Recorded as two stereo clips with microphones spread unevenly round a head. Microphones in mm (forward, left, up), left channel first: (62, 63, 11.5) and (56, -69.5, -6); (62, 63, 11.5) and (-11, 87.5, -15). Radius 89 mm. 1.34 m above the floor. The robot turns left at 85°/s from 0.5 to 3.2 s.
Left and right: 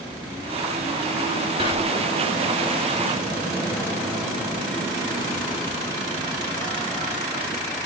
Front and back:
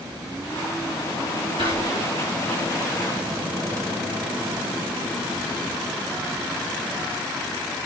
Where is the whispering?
155° right, 3.5 m; by 2.1 s 160° left, 3.5 m.